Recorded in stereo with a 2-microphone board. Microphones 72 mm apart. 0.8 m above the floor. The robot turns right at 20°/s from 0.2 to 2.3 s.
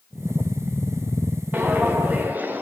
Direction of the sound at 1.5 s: 25° right (ahead or behind).